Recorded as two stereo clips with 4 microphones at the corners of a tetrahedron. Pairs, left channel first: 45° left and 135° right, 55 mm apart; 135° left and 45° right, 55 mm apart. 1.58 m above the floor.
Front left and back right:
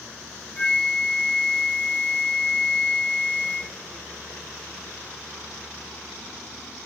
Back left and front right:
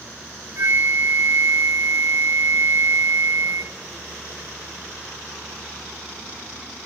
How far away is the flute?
About 0.8 m.